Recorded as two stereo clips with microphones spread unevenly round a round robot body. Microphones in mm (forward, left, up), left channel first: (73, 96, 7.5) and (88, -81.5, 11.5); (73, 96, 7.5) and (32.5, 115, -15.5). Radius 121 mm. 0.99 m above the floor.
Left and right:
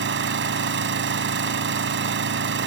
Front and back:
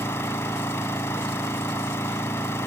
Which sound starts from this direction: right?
An engine running, at 0.0 s.